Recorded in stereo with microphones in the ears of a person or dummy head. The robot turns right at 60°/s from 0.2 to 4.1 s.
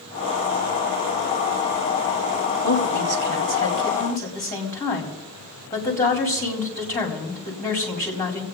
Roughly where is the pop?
I don't hear a pop.